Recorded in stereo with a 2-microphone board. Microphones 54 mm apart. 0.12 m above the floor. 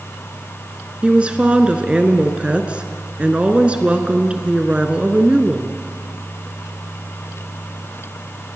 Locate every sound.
1.0 s a woman speaking: 20° right (ahead or behind), 1.7 m